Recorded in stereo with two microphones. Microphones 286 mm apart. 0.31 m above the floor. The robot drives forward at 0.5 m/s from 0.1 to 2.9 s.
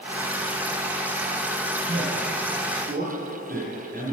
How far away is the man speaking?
About 1.3 m.